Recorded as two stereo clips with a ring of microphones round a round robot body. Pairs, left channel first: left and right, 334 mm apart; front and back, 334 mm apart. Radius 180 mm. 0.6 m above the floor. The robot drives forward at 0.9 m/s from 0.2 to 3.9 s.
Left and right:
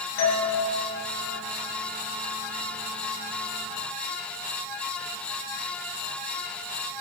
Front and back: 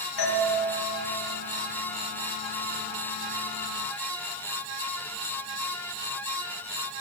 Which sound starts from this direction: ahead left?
A doorbell, at 0.2 s.